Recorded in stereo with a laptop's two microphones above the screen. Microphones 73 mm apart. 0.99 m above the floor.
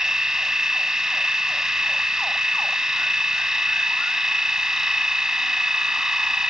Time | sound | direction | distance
0.0 | a machine running | 10° right (ahead or behind) | ?